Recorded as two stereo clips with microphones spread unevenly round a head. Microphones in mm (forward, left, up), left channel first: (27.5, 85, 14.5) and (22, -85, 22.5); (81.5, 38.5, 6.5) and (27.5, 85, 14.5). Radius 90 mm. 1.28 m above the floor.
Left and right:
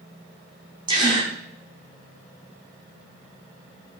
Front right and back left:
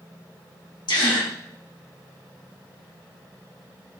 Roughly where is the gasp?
Ahead right.